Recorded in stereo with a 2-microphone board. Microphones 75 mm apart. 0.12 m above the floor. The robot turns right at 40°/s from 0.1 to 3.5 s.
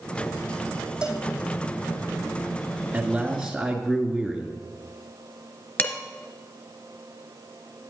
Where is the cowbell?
10° right (ahead or behind), 1.3 m; by 1.2 s centre (ahead or behind), 1.3 m.